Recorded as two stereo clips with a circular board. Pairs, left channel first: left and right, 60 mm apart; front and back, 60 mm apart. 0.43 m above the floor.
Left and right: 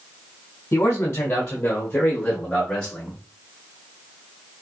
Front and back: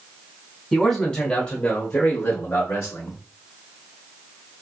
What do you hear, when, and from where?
0.7 s a man speaking: 80° left, 1.1 m; by 3.2 s 10° left, 1.8 m